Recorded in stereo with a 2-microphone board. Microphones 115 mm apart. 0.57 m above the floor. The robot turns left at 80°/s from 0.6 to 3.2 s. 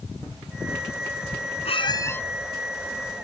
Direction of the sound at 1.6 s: 60° left.